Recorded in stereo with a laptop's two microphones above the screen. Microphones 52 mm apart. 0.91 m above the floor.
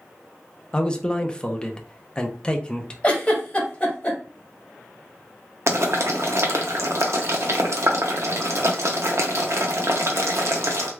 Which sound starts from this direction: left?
A giggle, at 3.0 s.